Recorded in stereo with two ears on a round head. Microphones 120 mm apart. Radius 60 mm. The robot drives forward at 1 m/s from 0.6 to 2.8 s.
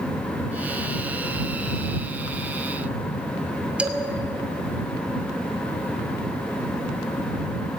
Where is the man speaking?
10° right (ahead or behind), 2.5 m.